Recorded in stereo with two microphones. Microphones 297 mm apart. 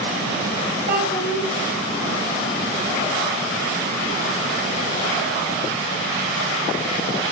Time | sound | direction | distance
0.9 | a child speaking | 45° left (ahead or behind) | 1.6 m